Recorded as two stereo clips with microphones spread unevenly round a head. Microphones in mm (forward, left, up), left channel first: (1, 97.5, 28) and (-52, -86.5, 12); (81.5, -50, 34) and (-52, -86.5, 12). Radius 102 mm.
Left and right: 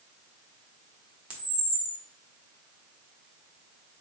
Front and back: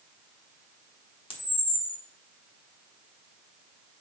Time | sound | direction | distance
1.3 | a camera shutter | 30° right | 0.9 m